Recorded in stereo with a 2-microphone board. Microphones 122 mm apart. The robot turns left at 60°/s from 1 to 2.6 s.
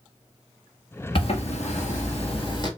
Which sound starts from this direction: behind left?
A zipper, at 1.1 s.